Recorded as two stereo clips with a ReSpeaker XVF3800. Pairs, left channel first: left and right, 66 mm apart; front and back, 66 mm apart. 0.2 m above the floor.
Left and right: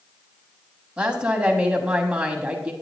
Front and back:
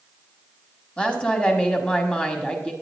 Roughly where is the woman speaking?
Ahead right.